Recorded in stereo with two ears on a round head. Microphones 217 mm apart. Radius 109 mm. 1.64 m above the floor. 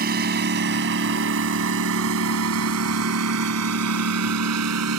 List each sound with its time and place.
0.0 s a lawn mower: 45° right (ahead or behind); by 5.0 s 75° right (ahead or behind)